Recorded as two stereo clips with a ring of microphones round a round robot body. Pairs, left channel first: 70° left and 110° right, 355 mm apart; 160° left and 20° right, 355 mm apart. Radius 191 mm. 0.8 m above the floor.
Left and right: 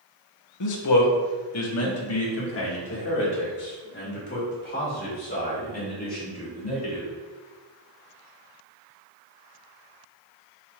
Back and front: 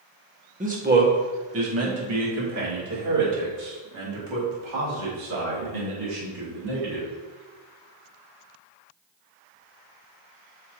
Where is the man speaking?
45° left, 1.6 m; by 7.1 s straight ahead, 5.5 m.